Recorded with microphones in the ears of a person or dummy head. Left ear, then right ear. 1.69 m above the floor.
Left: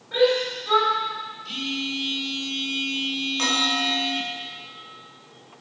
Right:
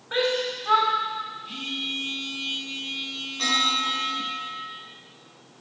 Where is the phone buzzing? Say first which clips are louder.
Left 4 dB; 35° left (ahead or behind), 4 m.